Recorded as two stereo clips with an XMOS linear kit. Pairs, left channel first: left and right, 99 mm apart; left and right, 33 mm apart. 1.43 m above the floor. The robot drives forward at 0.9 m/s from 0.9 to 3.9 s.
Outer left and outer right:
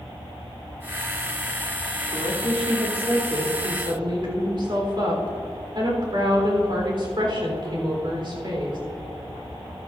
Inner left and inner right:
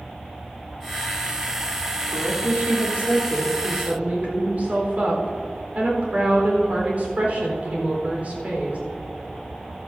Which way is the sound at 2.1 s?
75° right (ahead or behind).